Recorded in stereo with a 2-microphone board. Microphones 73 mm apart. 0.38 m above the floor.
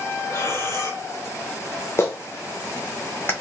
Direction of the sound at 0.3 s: 40° left (ahead or behind).